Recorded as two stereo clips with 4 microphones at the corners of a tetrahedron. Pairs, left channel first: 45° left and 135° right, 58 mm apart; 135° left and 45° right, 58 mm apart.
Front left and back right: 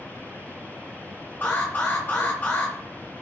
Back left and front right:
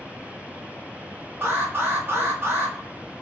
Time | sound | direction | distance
1.4 | an alarm | 10° right | 1.0 m